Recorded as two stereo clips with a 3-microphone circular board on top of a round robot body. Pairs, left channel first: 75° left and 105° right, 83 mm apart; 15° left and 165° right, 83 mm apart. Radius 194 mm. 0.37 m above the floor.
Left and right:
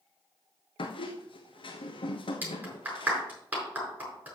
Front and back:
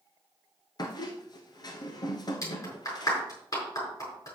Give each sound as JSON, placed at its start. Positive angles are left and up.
{"t": 0.8, "sound": "a squeak", "azimuth_deg": 55, "distance_m": 0.6}
{"t": 2.4, "sound": "a clap", "azimuth_deg": -35, "distance_m": 5.5}